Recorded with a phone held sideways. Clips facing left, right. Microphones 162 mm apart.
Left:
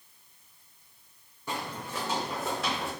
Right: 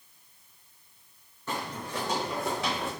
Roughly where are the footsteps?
Centre.